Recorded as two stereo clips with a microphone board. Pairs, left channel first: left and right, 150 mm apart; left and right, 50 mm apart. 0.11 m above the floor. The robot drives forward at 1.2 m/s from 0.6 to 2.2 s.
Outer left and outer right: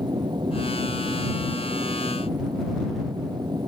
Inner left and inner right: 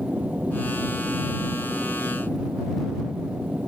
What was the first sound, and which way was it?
An aircraft, 30° right (ahead or behind).